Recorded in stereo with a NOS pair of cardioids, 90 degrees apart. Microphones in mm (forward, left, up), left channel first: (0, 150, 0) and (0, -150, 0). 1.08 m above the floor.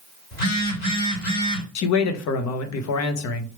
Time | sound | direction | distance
0.3 | a phone buzzing | 30° left | 2 m
1.8 | a man speaking | 65° left | 0.9 m